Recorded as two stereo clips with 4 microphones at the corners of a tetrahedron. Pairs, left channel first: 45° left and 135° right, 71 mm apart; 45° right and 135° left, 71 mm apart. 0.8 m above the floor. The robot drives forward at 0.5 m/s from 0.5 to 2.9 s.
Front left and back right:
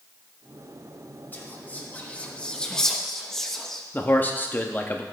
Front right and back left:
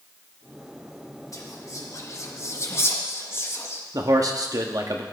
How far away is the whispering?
About 1.5 m.